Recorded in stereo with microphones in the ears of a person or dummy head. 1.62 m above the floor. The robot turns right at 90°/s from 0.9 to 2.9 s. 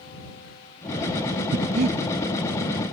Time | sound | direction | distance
1.5 | breathing | 65° right (ahead or behind) | ?